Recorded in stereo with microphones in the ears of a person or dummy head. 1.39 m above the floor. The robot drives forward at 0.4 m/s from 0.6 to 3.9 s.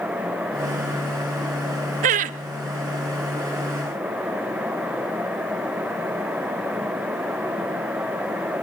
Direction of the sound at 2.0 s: 40° right (ahead or behind).